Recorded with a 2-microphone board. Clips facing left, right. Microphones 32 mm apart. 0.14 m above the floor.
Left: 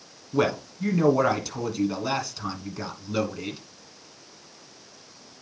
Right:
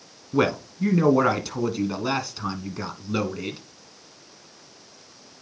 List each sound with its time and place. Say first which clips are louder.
0.3 s a man speaking: right 2 dB; 20° right (ahead or behind), 1.0 m